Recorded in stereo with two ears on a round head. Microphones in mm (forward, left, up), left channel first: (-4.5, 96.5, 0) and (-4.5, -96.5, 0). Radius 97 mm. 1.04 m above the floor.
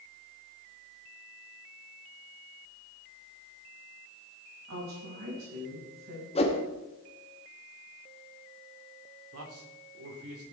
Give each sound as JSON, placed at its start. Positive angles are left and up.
{"t": 4.7, "sound": "a woman speaking", "side_deg": -65, "distance_m": 5.5}
{"t": 6.3, "sound": "a whoosh", "side_deg": 30, "distance_m": 1.4}
{"t": 9.3, "sound": "a man speaking", "side_deg": -75, "distance_m": 3.5}